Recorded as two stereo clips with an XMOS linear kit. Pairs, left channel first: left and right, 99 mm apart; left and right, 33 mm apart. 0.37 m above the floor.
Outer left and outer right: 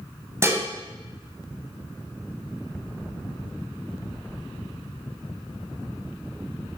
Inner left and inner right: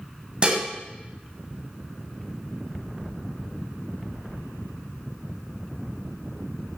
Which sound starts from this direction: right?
Dishes clattering, at 0.4 s.